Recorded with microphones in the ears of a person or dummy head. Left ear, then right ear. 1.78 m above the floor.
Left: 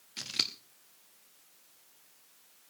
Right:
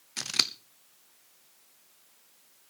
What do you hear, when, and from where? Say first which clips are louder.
0.2 s scissors: right 5 dB; 40° right (ahead or behind), 0.7 m